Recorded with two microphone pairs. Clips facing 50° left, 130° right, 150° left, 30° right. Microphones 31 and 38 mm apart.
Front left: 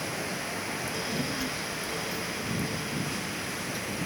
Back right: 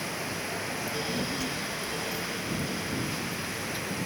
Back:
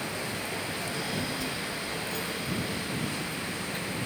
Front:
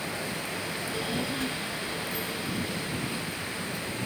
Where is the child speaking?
25° right; by 4.0 s 160° left.